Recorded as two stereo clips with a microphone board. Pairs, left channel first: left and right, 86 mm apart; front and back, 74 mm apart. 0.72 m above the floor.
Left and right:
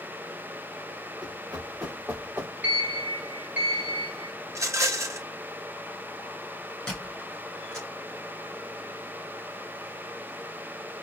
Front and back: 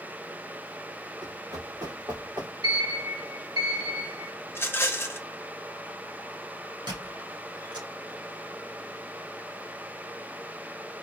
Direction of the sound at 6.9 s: 170° left.